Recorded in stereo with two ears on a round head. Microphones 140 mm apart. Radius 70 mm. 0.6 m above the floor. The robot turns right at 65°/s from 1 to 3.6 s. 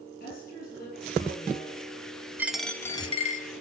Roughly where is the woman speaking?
Left.